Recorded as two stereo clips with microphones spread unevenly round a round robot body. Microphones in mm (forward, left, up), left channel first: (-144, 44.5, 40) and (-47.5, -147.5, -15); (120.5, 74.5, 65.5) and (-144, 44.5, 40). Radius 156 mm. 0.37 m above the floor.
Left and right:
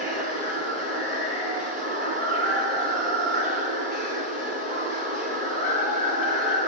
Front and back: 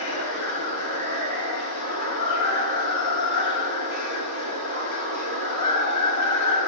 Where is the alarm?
I don't hear an alarm.